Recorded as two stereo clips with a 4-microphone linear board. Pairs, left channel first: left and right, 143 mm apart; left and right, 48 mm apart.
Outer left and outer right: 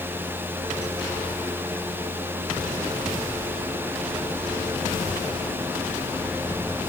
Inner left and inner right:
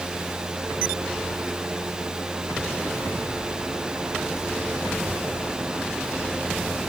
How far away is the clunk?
No clunk in this recording.